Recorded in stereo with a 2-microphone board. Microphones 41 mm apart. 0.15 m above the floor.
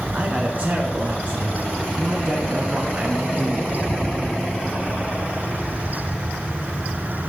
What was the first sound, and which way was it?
A man speaking, 35° right (ahead or behind).